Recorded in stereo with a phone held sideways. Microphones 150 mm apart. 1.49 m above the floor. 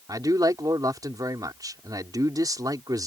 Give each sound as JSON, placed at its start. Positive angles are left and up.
{"t": 0.1, "sound": "a man speaking", "side_deg": -25}